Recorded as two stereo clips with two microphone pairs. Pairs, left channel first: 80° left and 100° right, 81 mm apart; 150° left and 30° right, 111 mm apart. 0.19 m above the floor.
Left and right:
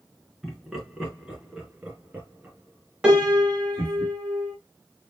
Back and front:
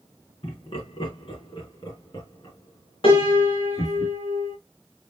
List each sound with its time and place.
0.4 s laughter: 170° left, 2.5 m; by 4.0 s 155° right, 3.5 m
3.0 s a piano: straight behind, 2.5 m